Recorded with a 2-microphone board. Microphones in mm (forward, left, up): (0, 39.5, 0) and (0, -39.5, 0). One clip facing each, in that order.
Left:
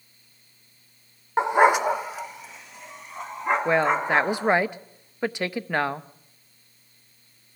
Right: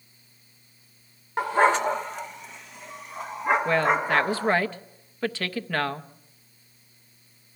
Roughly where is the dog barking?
Left.